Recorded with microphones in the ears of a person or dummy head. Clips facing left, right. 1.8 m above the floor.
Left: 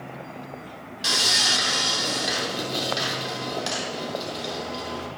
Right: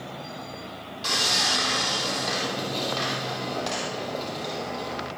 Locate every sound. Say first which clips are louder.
1.0 s sawing: even; 15° left (ahead or behind), 3 m